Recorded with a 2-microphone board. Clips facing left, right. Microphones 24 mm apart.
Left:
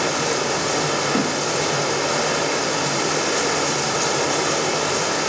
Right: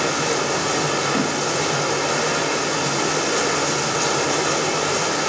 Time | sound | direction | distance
0.0 | running water | centre (ahead or behind) | 1.6 m
1.1 | a thud | 60° left (ahead or behind) | 9 m